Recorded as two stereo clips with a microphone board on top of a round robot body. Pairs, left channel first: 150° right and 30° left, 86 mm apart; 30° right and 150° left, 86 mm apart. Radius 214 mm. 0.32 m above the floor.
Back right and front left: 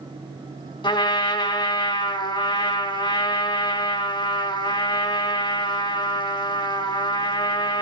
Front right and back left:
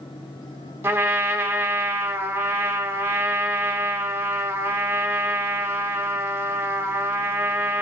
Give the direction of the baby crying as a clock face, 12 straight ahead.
I don't hear a baby crying.